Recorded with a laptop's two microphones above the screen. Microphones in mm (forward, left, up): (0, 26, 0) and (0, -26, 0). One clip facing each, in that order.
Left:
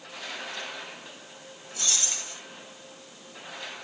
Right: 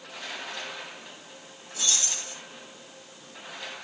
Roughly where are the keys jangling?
Left.